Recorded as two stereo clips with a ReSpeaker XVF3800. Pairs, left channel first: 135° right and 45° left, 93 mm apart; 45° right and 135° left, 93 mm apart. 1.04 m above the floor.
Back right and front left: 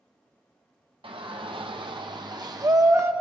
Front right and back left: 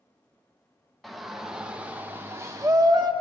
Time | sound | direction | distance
1.0 | a shout | 45° left | 1.3 m